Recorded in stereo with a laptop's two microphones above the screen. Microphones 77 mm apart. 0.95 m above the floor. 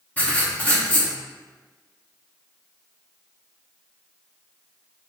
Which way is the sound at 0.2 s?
20° left (ahead or behind).